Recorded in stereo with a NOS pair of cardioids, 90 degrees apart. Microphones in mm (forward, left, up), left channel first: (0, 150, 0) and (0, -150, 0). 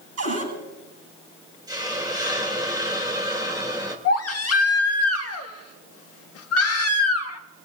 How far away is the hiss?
About 3 m.